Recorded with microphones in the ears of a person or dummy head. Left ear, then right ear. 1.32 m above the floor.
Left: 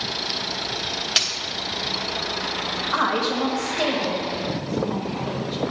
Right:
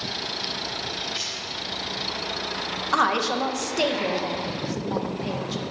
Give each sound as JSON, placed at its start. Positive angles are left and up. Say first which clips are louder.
{"t": 1.2, "sound": "a dropped coin", "louder": "left 14 dB", "side_deg": 30, "distance_m": 0.9}
{"t": 2.9, "sound": "a woman speaking", "louder": "right 1 dB", "side_deg": -80, "distance_m": 1.1}